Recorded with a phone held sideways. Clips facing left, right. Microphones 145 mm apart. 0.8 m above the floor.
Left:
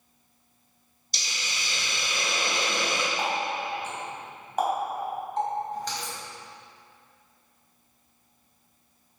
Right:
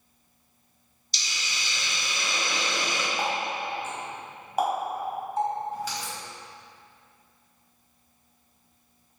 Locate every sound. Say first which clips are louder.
1.1 s a hiss: left 1 dB; 55° left (ahead or behind), 1.7 m
3.2 s a running tap: even; 5° right (ahead or behind), 3.5 m